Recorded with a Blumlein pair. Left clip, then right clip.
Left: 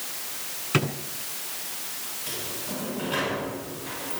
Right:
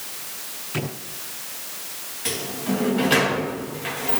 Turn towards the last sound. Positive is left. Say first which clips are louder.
# right 9 dB
turn(degrees=-50)